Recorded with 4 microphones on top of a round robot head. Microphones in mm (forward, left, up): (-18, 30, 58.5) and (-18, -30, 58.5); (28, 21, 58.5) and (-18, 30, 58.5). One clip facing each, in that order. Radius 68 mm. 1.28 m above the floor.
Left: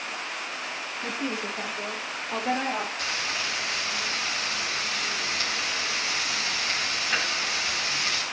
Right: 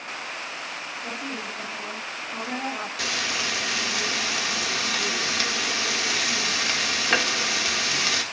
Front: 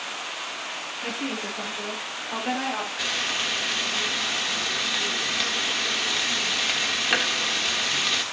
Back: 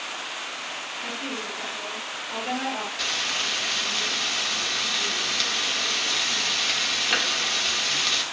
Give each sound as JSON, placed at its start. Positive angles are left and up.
{"t": 1.0, "sound": "a woman speaking", "azimuth_deg": 60, "distance_m": 9.5}
{"t": 3.0, "sound": "frying", "azimuth_deg": -90, "distance_m": 1.4}